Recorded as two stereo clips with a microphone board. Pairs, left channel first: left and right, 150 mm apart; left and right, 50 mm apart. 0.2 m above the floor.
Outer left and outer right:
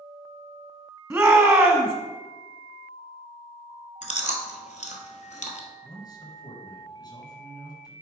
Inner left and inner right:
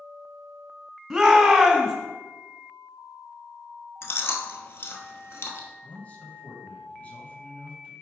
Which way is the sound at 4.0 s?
55° left (ahead or behind).